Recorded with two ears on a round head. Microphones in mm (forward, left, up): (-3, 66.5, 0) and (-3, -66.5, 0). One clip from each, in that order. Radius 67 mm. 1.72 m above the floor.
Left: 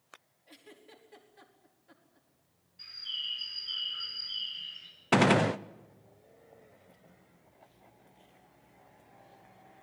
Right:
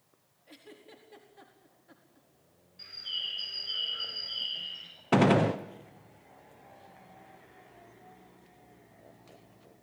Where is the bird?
10° left (ahead or behind), 9.5 m.